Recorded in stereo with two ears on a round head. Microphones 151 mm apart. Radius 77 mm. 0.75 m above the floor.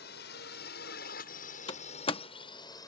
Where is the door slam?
30° left (ahead or behind).